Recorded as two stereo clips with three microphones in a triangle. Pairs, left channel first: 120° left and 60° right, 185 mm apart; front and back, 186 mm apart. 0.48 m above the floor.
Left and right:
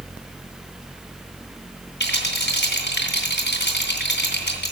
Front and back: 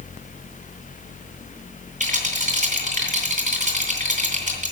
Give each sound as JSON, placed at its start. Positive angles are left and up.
{"t": 2.0, "sound": "a rattle", "azimuth_deg": 135, "distance_m": 2.5}